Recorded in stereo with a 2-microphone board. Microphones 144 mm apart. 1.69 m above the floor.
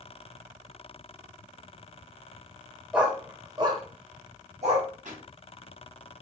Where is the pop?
60° right (ahead or behind), 3 m.